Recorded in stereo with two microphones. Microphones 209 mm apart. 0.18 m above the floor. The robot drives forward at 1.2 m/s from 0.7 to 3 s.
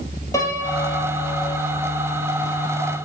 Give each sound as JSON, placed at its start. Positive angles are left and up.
{"t": 0.3, "sound": "a piano", "side_deg": 15, "distance_m": 1.6}